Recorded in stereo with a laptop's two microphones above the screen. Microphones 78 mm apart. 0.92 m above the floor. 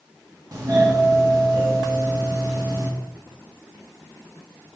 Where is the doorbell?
50° right (ahead or behind), 2 m.